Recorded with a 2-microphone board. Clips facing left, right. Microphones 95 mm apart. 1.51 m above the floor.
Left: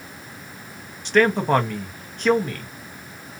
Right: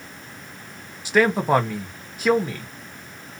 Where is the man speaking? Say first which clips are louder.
Left 1 dB; 10° right (ahead or behind), 1.1 m.